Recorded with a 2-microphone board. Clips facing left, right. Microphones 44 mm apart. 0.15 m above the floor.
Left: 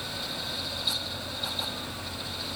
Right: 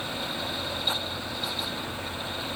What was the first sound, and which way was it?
Only background noise.